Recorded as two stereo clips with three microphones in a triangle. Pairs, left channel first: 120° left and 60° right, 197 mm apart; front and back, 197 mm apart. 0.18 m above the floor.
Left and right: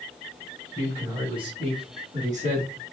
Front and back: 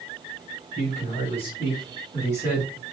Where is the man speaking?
5° left, 1.7 m; by 2.7 s 75° right, 1.9 m.